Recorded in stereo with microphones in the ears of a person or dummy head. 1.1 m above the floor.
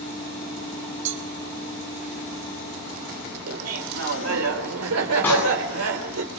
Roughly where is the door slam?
Centre.